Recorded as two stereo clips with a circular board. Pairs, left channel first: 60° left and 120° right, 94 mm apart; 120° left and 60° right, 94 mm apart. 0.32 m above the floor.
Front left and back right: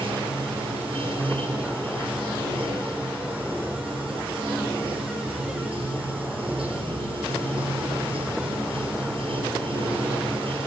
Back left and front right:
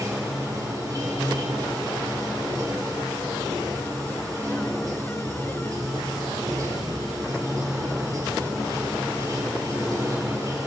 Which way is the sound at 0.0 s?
115° right.